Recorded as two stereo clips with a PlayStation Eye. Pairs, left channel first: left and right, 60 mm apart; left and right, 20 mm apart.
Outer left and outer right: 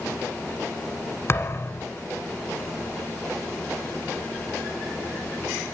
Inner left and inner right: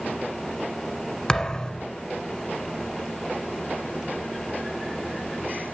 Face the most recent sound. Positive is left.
turn(degrees=45)  # may be behind; listen again after turning